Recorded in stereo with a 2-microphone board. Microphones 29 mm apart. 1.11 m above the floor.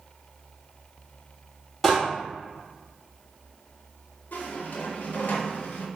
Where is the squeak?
75° left (ahead or behind), 0.6 m.